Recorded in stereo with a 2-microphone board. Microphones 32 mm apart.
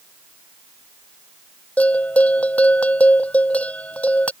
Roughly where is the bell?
Left.